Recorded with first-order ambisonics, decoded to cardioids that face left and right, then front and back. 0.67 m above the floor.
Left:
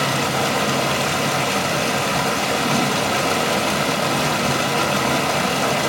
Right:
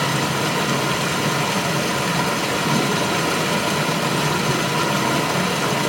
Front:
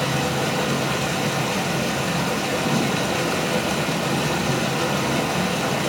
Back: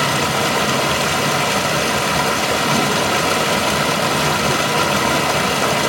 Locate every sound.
0.0 s running water: 165° left, 1.0 m